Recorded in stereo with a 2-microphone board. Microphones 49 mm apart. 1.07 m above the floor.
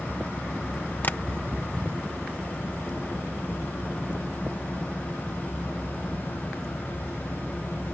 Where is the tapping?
40° left (ahead or behind).